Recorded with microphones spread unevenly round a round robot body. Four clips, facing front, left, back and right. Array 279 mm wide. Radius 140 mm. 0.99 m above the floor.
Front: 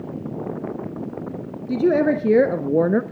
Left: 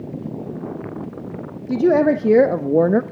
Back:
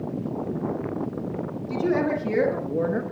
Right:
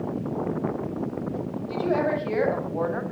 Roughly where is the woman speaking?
Ahead left.